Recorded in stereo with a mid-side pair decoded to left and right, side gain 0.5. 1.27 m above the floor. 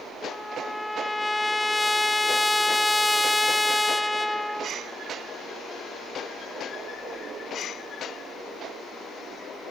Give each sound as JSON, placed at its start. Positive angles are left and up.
{"t": 0.3, "sound": "a trumpet", "azimuth_deg": 10, "distance_m": 0.6}